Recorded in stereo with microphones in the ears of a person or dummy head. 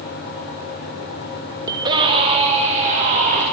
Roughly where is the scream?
Centre.